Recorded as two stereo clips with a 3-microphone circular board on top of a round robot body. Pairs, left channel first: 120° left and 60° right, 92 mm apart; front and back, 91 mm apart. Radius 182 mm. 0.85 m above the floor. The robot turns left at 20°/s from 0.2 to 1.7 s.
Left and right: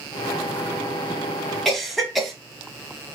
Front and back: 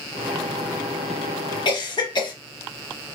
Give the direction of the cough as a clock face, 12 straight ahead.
11 o'clock.